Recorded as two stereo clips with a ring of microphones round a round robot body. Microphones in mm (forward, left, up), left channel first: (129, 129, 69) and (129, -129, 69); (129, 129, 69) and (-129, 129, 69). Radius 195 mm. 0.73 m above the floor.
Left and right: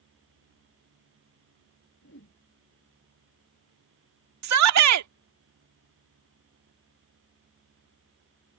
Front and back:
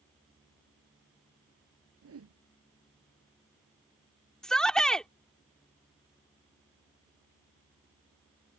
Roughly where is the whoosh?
Behind left.